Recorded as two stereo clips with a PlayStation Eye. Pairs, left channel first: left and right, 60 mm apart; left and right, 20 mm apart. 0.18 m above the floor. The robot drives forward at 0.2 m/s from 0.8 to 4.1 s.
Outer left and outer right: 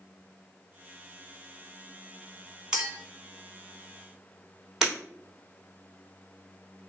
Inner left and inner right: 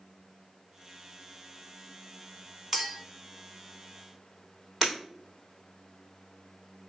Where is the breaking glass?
5° right (ahead or behind), 1.9 m.